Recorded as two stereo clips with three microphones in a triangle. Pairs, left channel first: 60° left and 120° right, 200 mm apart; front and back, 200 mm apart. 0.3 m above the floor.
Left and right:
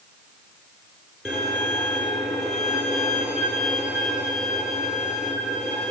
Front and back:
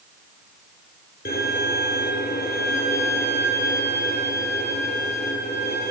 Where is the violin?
30° right, 8 m.